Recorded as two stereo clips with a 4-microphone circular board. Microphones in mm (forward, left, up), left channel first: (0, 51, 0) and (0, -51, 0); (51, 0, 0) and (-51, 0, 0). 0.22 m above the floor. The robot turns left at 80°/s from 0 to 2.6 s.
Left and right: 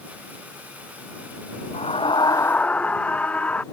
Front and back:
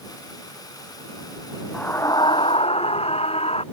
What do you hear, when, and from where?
1.7 s a scream: 80° left; by 3.6 s 15° left